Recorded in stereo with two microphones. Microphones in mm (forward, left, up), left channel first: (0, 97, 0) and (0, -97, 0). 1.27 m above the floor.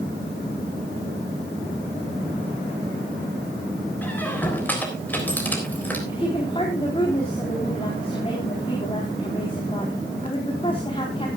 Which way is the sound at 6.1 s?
30° left (ahead or behind).